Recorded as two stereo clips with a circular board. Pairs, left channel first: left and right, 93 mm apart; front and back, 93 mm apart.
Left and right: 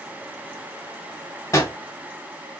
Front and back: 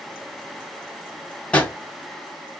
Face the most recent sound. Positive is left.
turn(degrees=65)